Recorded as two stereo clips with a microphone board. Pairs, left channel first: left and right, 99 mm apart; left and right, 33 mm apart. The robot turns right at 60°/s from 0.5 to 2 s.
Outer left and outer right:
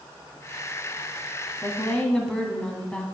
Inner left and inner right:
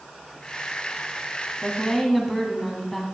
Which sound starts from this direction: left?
A woman speaking, at 1.6 s.